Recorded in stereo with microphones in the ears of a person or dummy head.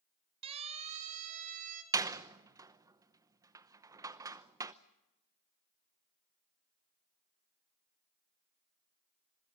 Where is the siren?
35° right (ahead or behind), 2.5 m; by 1.8 s 45° right (ahead or behind), 3.5 m.